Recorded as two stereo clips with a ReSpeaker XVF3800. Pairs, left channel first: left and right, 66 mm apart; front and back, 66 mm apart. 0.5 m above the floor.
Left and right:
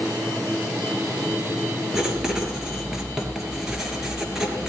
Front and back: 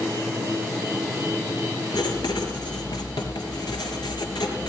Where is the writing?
5° right, 3 m.